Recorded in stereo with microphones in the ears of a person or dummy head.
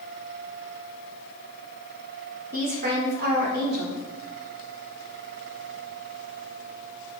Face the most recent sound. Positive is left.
turn(degrees=-50)  # may be behind; listen again after turning